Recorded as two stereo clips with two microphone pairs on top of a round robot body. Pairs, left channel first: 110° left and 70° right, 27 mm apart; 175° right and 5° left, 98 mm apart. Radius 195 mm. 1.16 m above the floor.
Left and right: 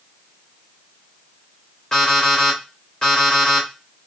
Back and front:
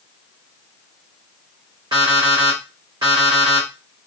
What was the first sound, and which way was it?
An alarm clock, 60° left.